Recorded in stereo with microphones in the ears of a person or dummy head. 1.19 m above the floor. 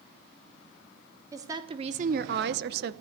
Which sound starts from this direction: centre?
A woman speaking, at 1.3 s.